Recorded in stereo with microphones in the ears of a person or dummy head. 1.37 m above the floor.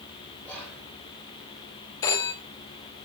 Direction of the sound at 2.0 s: 20° left (ahead or behind).